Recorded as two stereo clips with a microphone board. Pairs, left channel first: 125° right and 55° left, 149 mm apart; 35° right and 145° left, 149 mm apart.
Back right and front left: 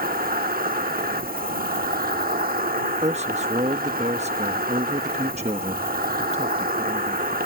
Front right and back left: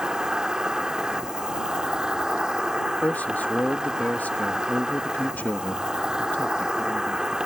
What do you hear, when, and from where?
0.0 s an insect: 60° left
3.0 s a man speaking: 40° left